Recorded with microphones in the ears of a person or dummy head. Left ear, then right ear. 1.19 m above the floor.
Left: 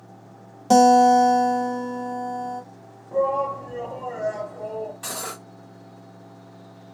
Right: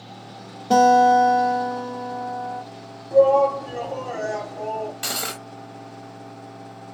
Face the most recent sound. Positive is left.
turn(degrees=-25)  # may be behind; listen again after turning